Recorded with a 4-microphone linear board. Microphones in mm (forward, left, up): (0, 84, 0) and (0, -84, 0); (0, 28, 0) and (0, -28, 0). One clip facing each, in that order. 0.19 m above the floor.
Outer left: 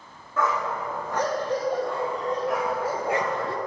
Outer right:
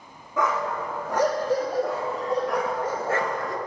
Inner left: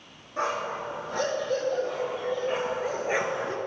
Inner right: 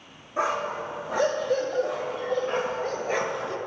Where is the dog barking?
15° right (ahead or behind), 4 m; by 3.6 s 35° left (ahead or behind), 1.0 m.